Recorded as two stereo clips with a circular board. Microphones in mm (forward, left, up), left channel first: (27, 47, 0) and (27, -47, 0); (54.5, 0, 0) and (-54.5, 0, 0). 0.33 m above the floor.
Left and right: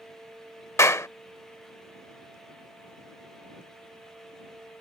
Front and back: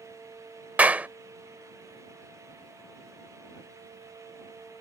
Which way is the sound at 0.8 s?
115° left.